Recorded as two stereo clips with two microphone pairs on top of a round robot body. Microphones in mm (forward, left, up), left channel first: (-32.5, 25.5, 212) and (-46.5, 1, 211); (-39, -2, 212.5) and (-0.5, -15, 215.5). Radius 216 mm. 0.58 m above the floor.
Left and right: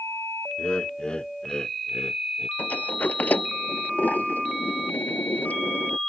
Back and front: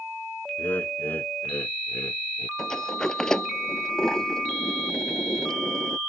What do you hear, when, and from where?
0.6 s laughter: 120° left; by 2.5 s 115° left
2.6 s a sliding door: 85° left